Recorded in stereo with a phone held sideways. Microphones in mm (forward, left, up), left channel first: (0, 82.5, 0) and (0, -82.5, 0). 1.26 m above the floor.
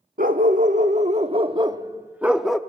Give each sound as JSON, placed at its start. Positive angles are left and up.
{"t": 0.2, "sound": "a dog barking", "side_deg": -60, "distance_m": 1.2}